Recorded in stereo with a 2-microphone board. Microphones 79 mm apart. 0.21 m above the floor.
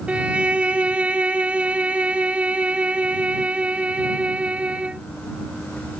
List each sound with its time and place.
0.1 s a violin: 15° right (ahead or behind)